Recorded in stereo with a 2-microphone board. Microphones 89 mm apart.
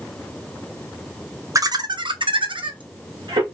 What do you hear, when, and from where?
1.6 s laughter: 40° right (ahead or behind), 0.5 m; by 3.4 s 60° right (ahead or behind), 0.9 m